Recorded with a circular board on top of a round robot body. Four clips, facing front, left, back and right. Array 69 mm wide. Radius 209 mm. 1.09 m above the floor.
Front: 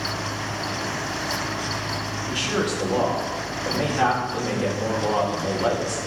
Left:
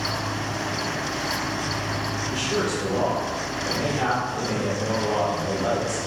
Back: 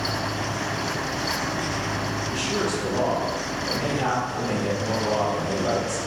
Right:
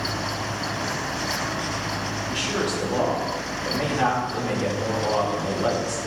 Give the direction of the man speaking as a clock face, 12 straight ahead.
1 o'clock.